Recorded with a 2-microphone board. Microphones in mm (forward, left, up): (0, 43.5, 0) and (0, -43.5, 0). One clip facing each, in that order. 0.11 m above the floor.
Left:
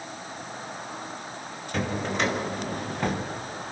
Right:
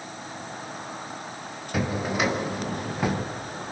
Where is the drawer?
5° right (ahead or behind), 1.9 m.